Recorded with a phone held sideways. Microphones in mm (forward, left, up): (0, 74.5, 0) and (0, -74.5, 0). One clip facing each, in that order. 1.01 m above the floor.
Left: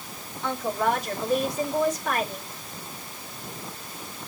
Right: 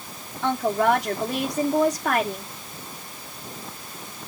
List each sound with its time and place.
0.4 s a woman speaking: 75° right (ahead or behind), 3 m